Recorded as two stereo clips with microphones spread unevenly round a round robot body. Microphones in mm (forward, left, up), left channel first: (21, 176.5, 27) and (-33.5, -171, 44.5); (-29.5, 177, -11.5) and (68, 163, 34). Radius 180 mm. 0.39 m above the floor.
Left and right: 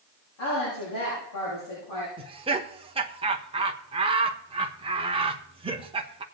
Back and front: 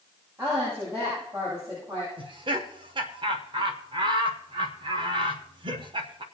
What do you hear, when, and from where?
0.4 s a woman speaking: 40° left, 9 m
2.2 s laughter: 40° right, 1.0 m